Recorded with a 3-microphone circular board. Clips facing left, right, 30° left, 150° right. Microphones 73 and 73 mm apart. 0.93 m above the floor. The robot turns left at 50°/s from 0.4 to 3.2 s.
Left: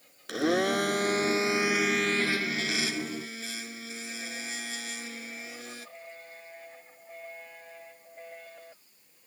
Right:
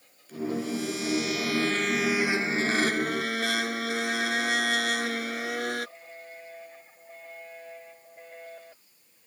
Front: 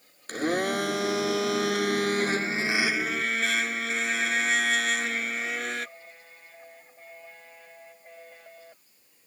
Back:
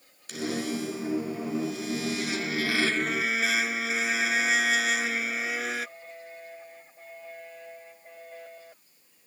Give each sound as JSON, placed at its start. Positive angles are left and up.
{"t": 0.3, "sound": "a blender", "azimuth_deg": 80}